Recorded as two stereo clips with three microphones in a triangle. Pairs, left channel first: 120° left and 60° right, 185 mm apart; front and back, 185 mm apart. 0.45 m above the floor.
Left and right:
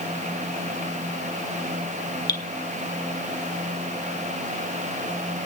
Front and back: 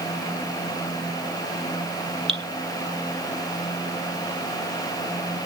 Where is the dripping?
165° left, 1.3 m.